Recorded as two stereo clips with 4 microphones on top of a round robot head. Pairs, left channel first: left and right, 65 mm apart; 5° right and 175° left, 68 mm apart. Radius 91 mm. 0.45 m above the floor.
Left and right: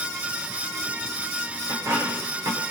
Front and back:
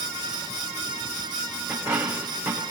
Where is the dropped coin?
135° right, 7 m.